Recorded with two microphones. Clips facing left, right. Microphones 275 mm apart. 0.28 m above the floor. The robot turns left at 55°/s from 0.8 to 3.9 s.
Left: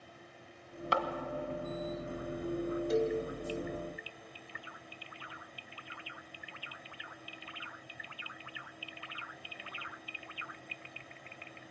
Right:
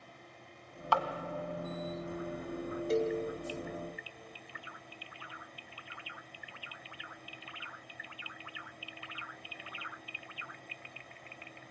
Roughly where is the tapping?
Left.